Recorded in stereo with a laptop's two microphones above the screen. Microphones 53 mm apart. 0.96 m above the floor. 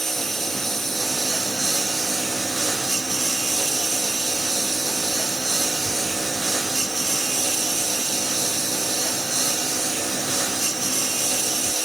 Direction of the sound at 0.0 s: 5° left (ahead or behind).